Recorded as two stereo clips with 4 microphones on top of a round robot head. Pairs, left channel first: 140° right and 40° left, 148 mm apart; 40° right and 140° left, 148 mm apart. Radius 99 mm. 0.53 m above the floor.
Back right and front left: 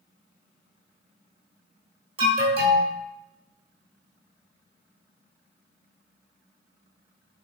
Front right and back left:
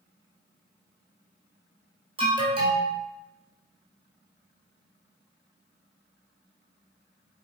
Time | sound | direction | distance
2.2 | an alarm | 90° left | 3 m